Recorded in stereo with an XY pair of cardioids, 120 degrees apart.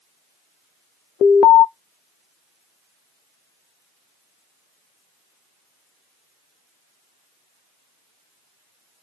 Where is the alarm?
65° left, 0.6 m.